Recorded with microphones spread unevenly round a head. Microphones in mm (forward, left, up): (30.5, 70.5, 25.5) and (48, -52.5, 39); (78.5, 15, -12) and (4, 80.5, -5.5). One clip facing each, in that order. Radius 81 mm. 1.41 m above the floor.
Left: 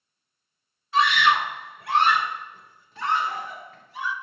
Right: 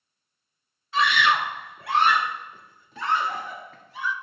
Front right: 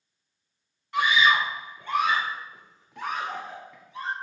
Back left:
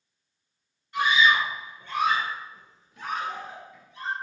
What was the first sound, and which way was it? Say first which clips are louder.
A scream: left 2 dB, even; 95° right.